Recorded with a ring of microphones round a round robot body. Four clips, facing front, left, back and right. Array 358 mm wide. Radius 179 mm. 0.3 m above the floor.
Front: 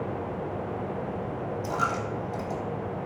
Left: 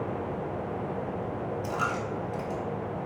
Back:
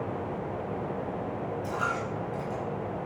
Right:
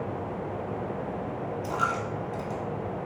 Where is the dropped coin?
15° left, 0.9 m.